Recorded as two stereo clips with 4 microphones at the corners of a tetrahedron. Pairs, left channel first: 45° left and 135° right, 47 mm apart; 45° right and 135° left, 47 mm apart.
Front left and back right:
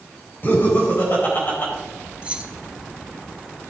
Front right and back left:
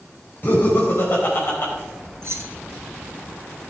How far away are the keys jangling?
About 0.9 m.